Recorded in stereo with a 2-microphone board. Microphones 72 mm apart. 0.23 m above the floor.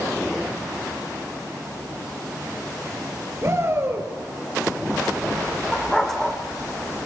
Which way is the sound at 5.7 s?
5° left (ahead or behind).